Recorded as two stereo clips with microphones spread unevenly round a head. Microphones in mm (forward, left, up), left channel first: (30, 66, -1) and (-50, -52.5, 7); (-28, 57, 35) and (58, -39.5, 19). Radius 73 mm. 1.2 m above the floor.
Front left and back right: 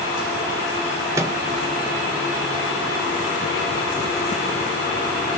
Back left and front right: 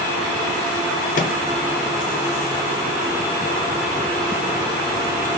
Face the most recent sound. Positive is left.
turn(degrees=165)